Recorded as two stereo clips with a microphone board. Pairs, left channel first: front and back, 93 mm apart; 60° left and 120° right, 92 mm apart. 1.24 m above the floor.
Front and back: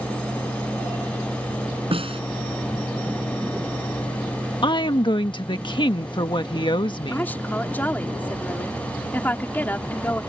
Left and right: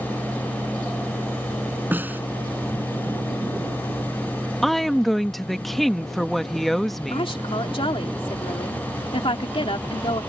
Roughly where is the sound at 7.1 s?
Left.